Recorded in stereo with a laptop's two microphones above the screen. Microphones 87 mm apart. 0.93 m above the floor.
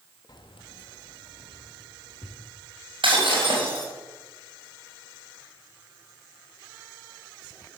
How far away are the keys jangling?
About 0.6 m.